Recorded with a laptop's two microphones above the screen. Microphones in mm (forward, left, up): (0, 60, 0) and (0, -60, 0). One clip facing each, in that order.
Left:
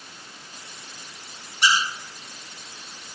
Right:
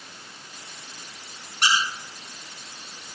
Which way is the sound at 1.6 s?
75° right (ahead or behind).